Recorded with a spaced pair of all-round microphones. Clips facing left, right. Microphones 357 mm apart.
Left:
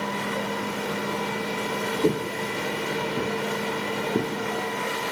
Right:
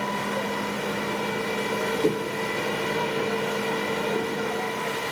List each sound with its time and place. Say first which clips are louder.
2.0 s footsteps: left 3 dB; 10° left (ahead or behind), 1.6 m; by 4.3 s 40° left (ahead or behind), 4 m